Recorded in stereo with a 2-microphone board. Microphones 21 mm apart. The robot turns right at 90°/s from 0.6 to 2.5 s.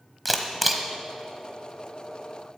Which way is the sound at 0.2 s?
Centre (ahead or behind).